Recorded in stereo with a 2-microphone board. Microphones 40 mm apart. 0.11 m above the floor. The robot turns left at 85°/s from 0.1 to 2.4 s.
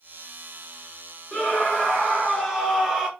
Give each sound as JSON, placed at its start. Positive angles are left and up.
{"t": 1.3, "sound": "a scream", "side_deg": 25, "distance_m": 1.9}